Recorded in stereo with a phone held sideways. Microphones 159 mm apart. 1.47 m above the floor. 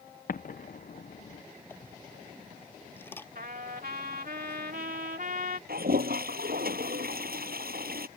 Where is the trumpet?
70° right (ahead or behind).